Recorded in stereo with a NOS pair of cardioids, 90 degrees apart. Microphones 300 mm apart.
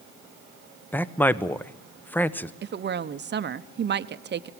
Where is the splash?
No splash in this recording.